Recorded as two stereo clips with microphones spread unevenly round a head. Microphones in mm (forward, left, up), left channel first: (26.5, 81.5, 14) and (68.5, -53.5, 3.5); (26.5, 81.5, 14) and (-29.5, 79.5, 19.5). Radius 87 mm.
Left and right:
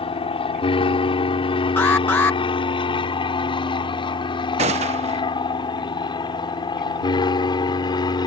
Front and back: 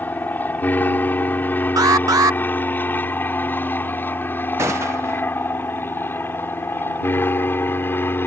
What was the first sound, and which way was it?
An aircraft, 60° left.